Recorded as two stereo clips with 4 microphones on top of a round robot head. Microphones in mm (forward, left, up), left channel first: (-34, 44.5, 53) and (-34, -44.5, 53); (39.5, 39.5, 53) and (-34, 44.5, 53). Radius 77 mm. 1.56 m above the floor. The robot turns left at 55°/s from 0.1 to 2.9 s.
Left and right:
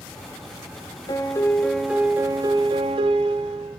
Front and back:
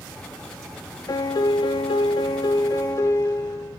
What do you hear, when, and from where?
1.1 s a piano: 35° left, 0.7 m; by 3.8 s 65° right, 0.7 m